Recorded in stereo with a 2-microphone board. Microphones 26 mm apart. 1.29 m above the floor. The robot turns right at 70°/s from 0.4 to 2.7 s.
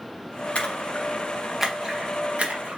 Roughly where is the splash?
Left.